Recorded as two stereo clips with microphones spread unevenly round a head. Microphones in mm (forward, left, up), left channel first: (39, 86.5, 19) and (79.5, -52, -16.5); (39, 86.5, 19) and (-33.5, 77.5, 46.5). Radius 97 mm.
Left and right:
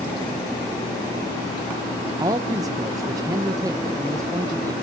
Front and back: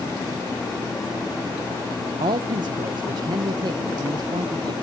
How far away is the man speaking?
About 0.7 m.